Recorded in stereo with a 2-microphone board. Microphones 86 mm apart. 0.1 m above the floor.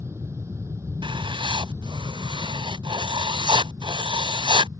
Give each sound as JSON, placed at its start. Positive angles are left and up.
{"t": 0.0, "sound": "an aircraft", "side_deg": -30}
{"t": 1.0, "sound": "writing", "side_deg": -70}